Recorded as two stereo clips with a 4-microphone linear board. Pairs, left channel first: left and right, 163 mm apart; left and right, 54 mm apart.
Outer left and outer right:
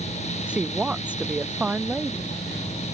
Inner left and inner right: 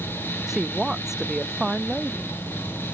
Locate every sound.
0.5 s a woman speaking: 5° right (ahead or behind)